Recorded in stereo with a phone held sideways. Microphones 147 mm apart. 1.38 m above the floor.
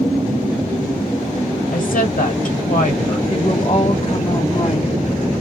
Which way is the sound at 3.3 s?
35° left (ahead or behind).